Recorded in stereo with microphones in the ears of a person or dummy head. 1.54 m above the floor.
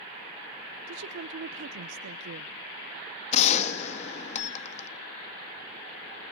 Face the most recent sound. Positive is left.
turn(degrees=35)  # may be behind; listen again after turning